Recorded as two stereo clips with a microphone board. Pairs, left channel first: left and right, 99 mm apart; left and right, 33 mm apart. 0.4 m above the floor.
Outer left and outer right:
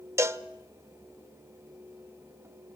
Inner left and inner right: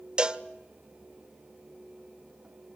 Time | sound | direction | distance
0.2 | a cowbell | 30° right (ahead or behind) | 0.7 m